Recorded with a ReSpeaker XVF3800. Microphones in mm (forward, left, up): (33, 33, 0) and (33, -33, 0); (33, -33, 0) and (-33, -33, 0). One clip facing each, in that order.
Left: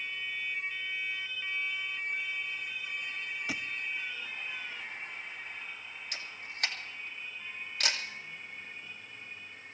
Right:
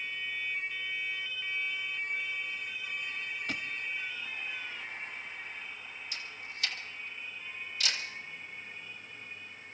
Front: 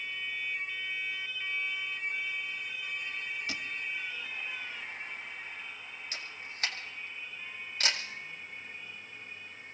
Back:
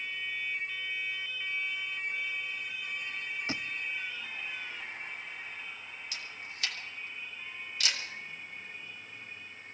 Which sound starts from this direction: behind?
A thud, at 3.5 s.